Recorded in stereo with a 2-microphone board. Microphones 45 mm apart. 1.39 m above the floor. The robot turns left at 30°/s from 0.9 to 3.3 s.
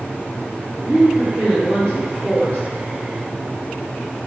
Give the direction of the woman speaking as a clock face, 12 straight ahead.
6 o'clock.